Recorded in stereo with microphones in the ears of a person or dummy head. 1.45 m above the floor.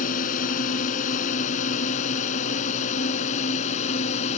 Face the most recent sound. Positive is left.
turn(degrees=40)  # may be behind; listen again after turning